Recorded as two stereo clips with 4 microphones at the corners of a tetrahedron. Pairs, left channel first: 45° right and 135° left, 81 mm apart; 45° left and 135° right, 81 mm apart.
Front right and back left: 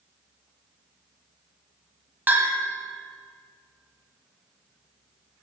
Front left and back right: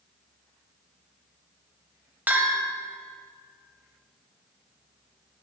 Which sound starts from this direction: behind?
A bell, at 2.3 s.